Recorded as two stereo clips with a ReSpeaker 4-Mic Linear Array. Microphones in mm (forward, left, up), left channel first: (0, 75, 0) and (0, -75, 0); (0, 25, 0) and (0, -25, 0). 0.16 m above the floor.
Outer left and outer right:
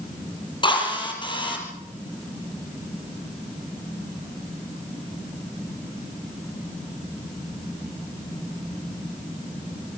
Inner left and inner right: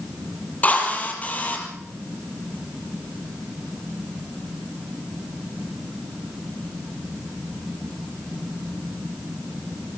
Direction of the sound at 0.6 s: 30° left (ahead or behind).